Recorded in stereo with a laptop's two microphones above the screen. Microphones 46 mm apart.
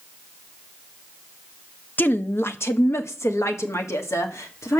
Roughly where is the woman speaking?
Left.